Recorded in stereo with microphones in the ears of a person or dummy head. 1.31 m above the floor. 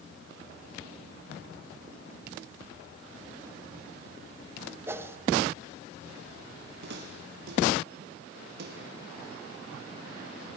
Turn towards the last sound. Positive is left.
turn(degrees=-60)  # may be behind; listen again after turning